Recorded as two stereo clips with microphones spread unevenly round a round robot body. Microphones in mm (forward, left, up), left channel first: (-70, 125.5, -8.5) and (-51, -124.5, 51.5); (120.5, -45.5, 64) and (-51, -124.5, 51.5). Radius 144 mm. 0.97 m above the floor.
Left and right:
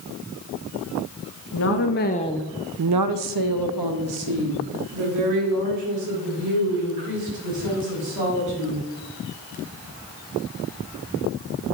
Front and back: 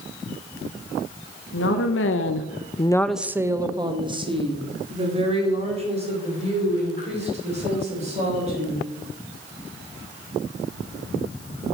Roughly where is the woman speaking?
Ahead left.